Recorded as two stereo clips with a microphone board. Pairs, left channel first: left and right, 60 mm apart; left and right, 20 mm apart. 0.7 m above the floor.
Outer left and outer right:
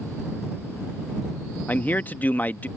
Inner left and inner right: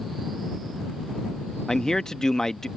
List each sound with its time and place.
1.7 s a man speaking: 25° left (ahead or behind)